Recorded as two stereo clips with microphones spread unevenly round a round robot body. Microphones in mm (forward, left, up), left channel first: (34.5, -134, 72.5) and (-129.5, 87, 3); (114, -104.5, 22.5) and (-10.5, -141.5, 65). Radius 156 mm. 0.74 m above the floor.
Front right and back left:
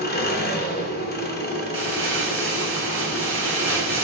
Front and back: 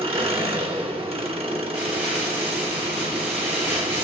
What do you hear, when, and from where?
0.0 s an engine running: 115° right, 1.6 m
1.7 s crumpling: 175° left, 3.5 m